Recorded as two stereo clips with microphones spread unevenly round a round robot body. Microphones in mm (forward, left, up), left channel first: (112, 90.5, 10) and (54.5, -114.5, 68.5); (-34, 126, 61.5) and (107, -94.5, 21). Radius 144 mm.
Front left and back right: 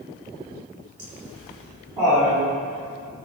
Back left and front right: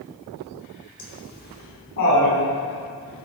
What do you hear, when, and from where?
1.0 s laughter: 175° right, 4.5 m; by 2.4 s 165° left, 4.5 m